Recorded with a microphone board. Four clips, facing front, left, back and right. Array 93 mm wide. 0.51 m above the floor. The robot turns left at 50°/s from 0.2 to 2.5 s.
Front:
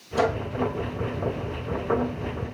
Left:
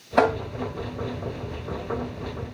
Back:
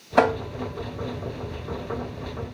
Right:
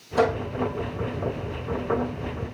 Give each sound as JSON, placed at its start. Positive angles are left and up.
{"t": 0.2, "sound": "tapping", "azimuth_deg": 150, "distance_m": 3.0}